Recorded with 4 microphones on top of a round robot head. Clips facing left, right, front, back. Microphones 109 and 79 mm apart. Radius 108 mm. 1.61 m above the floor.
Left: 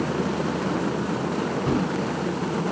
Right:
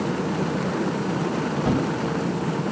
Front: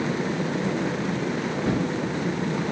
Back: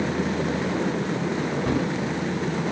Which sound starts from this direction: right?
A thud, at 1.6 s.